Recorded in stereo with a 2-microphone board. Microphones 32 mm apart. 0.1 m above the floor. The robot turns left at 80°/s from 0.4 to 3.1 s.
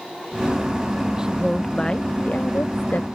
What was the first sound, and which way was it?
A woman speaking, 155° right.